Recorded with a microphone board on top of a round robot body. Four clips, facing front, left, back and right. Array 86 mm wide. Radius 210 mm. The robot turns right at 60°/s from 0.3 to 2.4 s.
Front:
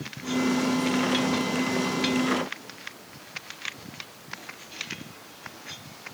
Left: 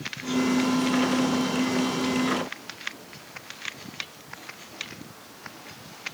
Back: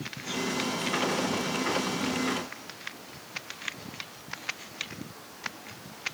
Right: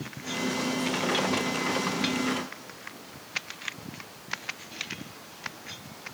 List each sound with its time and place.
Only background noise.